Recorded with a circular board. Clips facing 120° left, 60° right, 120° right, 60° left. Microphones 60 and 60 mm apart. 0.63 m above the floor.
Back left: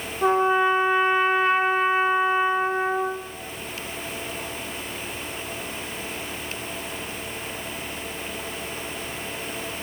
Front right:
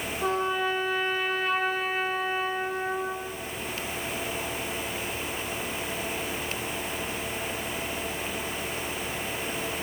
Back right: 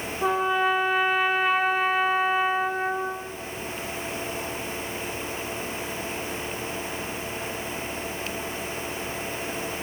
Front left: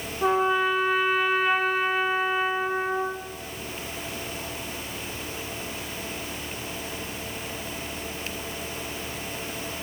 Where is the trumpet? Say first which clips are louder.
Back left 8 dB, front left 1 dB; 150° left, 0.6 m.